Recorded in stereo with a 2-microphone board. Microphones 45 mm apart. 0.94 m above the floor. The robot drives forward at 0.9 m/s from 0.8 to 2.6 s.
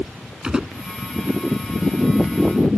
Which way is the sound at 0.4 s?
15° right (ahead or behind).